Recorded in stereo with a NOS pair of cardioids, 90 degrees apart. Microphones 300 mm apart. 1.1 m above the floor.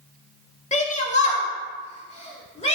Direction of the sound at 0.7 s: 25° left.